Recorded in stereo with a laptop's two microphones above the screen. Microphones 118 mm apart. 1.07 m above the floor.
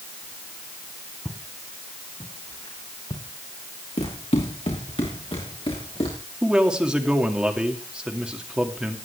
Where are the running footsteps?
60° left (ahead or behind), 5.5 m; by 6.2 s 50° left (ahead or behind), 6.5 m.